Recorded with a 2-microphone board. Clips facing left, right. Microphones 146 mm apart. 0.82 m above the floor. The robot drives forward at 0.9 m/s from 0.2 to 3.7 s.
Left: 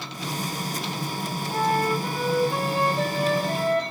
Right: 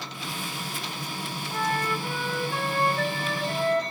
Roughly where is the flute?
Left.